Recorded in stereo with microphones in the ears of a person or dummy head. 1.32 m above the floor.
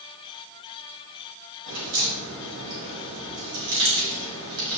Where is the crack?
70° right (ahead or behind), 5 m.